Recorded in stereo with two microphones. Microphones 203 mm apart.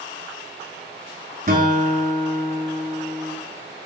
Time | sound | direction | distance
1.5 | a guitar | 45° right (ahead or behind) | 1.8 m